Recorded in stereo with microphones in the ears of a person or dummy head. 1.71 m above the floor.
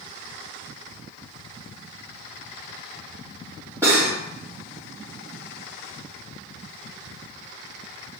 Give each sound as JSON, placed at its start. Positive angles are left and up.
{"t": 3.8, "sound": "cutlery clinking", "side_deg": -10, "distance_m": 2.0}